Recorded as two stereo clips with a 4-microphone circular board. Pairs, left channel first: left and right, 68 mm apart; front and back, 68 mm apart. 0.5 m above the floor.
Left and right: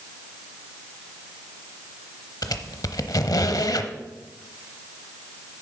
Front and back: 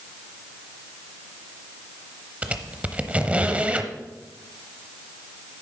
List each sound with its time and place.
2.4 s a squeak: 110° left, 0.8 m